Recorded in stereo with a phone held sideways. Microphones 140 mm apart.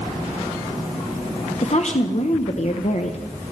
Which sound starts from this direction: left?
A woman speaking, at 1.6 s.